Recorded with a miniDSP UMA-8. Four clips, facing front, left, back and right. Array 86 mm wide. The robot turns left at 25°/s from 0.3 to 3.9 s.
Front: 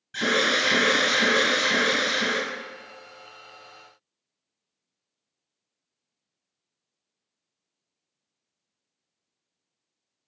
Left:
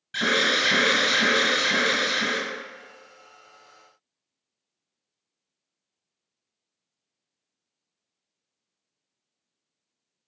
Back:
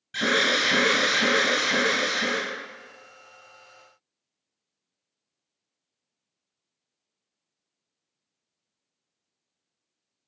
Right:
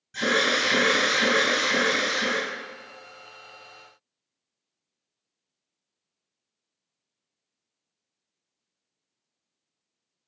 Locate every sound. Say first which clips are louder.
0.1 s an alarm: even, even; 105° left, 1.6 m; by 2.4 s 55° left, 1.6 m